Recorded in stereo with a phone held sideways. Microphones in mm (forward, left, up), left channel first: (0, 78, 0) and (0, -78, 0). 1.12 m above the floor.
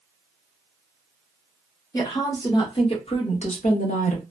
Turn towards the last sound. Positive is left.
turn(degrees=55)  # may be behind; listen again after turning